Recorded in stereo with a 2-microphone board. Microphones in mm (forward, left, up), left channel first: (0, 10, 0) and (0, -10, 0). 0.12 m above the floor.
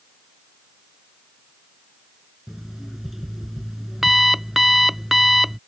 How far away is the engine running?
No engine running in this recording.